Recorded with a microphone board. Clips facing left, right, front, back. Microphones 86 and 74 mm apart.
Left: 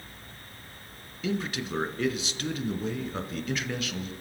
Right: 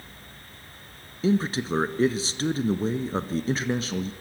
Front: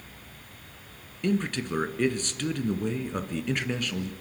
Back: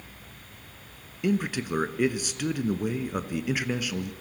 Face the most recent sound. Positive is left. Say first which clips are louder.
# right 7 dB, back 1 dB
turn(degrees=-105)